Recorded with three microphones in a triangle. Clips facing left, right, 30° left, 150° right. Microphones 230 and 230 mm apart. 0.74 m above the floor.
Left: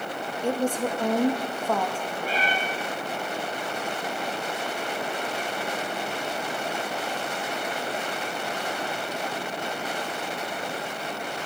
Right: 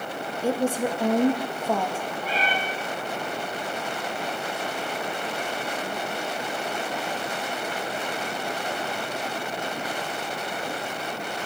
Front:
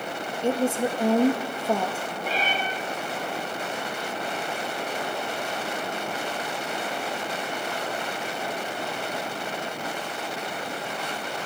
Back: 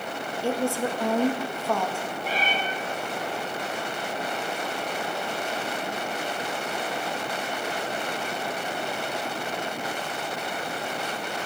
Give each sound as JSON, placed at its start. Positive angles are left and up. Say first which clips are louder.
{"t": 0.4, "sound": "a woman speaking", "louder": "right 1 dB, front 2 dB", "azimuth_deg": -20, "distance_m": 0.6}
{"t": 2.2, "sound": "a cat meowing", "louder": "left 2 dB, front 2 dB", "azimuth_deg": 50, "distance_m": 6.5}